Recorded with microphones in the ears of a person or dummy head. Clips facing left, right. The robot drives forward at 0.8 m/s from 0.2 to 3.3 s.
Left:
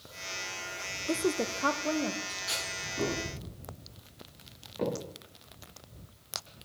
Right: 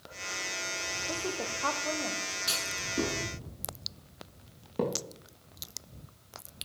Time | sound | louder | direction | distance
1.1 | a woman speaking | left 7 dB | 35° left (ahead or behind) | 0.7 m
2.5 | a clunk | right 1 dB | 35° right (ahead or behind) | 5.5 m
4.8 | a thud | right 1 dB | 60° right (ahead or behind) | 8.5 m